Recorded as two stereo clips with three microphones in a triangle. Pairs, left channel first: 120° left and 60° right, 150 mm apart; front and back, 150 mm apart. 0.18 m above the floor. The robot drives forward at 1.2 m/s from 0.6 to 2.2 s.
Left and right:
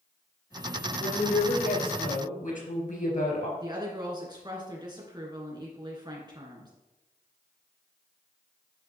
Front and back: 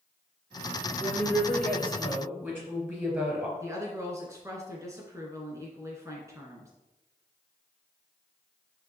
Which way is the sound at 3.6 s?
115° right.